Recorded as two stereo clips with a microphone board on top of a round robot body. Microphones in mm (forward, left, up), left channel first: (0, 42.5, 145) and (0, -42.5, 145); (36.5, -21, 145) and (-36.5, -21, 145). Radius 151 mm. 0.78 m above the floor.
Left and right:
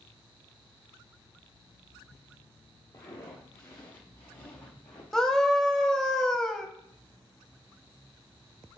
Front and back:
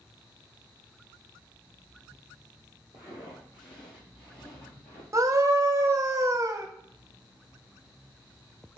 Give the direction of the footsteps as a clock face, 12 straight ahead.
11 o'clock.